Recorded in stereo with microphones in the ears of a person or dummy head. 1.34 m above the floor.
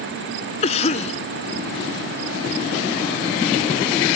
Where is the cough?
30° left (ahead or behind).